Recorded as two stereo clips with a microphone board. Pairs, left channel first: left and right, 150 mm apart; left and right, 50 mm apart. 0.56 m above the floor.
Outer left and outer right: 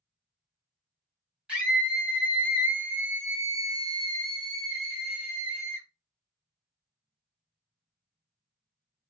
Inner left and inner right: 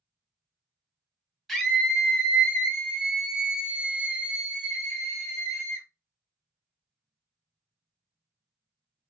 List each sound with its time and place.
1.5 s a scream: 5° right (ahead or behind), 3 m; by 5.9 s 10° right (ahead or behind), 2 m